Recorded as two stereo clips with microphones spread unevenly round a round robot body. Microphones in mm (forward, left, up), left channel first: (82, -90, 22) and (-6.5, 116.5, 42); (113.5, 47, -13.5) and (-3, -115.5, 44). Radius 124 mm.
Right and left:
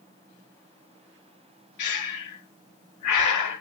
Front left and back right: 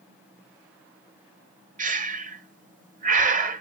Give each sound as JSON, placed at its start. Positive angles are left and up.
{"t": 1.8, "sound": "breathing", "azimuth_deg": -80, "distance_m": 0.6}